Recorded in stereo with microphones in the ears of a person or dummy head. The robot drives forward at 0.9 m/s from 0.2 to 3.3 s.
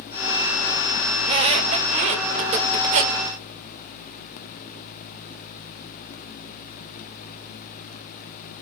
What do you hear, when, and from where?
1.2 s a squeak: 30° right (ahead or behind), 3 m; by 3.2 s 45° right (ahead or behind), 2.0 m